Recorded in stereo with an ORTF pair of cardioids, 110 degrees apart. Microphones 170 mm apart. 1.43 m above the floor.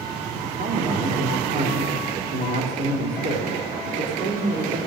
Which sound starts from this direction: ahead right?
A man speaking, at 0.4 s.